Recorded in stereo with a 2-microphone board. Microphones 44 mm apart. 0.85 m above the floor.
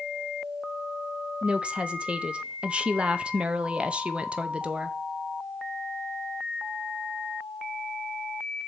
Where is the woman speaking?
25° right (ahead or behind), 0.6 m.